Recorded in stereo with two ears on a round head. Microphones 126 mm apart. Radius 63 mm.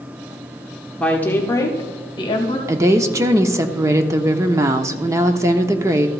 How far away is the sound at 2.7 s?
About 0.7 m.